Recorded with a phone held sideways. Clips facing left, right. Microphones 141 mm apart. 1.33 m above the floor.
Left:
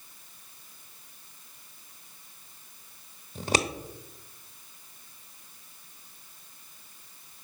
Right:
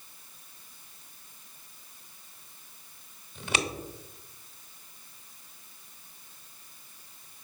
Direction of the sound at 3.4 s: 35° left (ahead or behind).